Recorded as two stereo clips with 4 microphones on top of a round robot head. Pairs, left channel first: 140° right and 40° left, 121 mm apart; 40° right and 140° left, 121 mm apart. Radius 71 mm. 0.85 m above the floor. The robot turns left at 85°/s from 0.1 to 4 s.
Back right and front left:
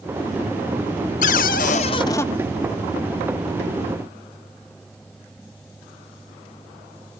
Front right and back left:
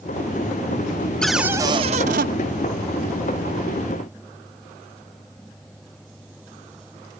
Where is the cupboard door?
125° right, 0.5 m; by 2.3 s 145° left, 0.5 m.